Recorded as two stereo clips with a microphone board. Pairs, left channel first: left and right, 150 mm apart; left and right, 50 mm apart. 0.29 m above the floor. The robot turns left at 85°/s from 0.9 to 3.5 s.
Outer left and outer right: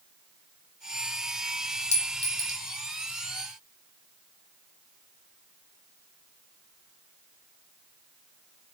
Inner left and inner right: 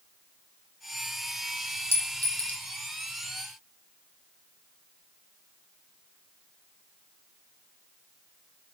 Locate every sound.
1.9 s a clink: 50° left (ahead or behind), 1.0 m; by 2.6 s 20° left (ahead or behind), 1.0 m